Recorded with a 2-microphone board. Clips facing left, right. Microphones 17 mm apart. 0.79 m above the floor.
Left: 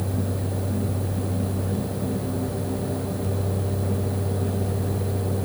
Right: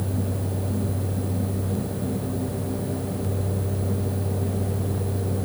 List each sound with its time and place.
Only background noise.